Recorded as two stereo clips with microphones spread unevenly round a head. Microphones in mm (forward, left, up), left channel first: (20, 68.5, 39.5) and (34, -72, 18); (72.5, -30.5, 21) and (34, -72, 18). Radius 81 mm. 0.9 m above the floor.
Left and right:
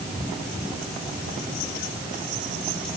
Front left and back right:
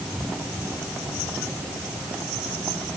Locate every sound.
Only background noise.